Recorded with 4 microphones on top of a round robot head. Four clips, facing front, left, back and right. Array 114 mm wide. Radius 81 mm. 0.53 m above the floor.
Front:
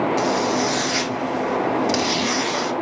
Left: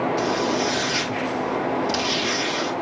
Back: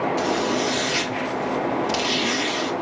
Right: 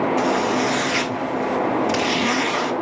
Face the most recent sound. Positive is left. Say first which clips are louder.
# right 3 dB, front 2 dB
turn(degrees=-65)